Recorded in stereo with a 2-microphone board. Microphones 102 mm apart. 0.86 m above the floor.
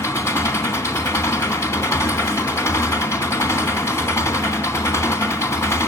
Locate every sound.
0.0 s an engine running: 30° left (ahead or behind), 2.5 m